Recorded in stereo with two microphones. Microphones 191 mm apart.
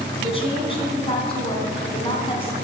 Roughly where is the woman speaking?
Left.